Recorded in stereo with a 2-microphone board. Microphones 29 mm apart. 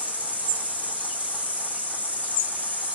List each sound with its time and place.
0.0 s an insect: 55° right (ahead or behind), 2.5 m